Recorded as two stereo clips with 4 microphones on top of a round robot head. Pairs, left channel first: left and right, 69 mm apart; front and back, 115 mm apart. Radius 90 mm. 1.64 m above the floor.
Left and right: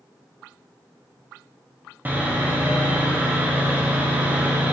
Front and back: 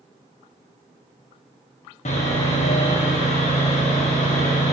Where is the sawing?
25° right, 1.4 m.